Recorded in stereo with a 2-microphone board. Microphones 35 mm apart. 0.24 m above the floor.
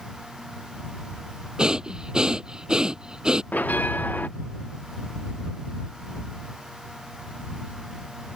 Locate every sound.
1.6 s breathing: 25° right (ahead or behind)
3.5 s a bell: 60° left (ahead or behind)